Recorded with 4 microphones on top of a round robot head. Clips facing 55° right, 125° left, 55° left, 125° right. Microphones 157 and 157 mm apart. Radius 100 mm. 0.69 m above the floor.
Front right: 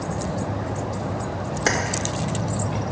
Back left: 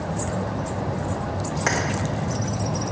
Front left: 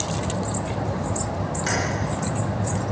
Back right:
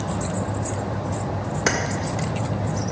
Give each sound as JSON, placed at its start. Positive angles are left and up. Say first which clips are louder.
{"t": 1.7, "sound": "keys jangling", "louder": "front right 2 dB, back right 5 dB", "azimuth_deg": -110, "distance_m": 1.4}